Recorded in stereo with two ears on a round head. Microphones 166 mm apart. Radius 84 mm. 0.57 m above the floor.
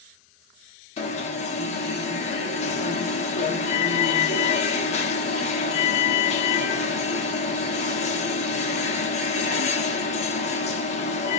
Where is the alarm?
40° left (ahead or behind), 1.0 m.